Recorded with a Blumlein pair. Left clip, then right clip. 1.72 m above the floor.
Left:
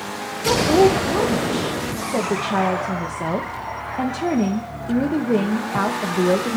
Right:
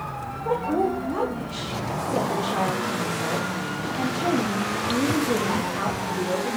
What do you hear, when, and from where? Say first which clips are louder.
0.5 s a woman speaking: left 8 dB; 70° left, 1.3 m